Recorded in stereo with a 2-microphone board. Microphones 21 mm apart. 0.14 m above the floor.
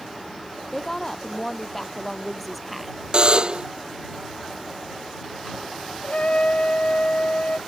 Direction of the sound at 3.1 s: 45° right (ahead or behind).